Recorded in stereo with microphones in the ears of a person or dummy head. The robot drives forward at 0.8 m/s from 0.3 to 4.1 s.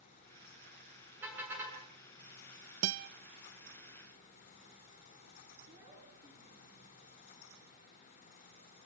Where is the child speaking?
25° right (ahead or behind), 8 m.